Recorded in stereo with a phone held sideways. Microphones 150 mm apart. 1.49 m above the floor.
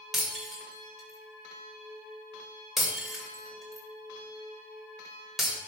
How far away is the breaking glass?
About 2.5 m.